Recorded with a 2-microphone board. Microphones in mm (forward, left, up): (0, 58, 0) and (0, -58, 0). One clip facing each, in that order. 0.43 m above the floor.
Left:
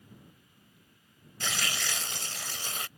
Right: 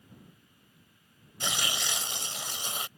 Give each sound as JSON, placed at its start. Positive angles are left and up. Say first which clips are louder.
{"t": 1.4, "sound": "tearing paper", "louder": "right 1 dB", "side_deg": -20}